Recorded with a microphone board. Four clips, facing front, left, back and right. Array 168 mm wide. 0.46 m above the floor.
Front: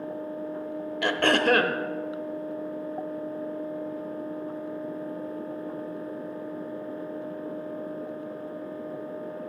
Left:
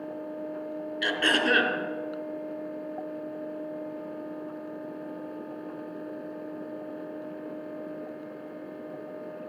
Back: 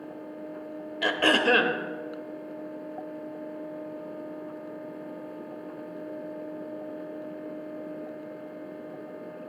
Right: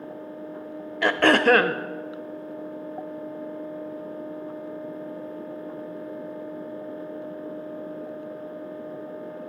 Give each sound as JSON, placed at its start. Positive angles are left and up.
{"t": 1.0, "sound": "throat clearing", "azimuth_deg": -85, "distance_m": 0.8}